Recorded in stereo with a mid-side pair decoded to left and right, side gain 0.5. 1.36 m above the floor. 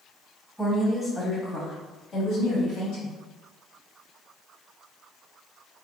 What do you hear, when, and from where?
0.6 s a woman speaking: 10° left, 1.4 m; by 3.1 s 70° left, 1.7 m